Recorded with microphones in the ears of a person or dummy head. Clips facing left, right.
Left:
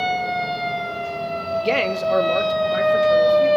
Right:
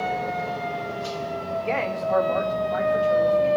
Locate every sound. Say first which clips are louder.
1.6 s a man speaking: left 6 dB; 50° left (ahead or behind), 0.7 m; by 3.5 s 35° left (ahead or behind), 2.5 m